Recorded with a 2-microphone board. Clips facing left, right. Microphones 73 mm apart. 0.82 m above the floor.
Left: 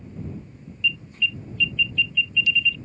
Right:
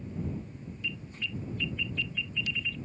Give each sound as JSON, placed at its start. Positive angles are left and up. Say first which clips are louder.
{"t": 0.8, "sound": "an alarm", "louder": "left 13 dB", "side_deg": -45}